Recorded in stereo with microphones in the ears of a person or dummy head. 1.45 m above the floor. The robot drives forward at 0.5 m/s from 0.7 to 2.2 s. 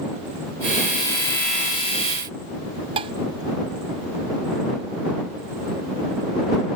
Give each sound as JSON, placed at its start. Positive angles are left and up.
{"t": 3.0, "sound": "dishes clattering", "side_deg": -35}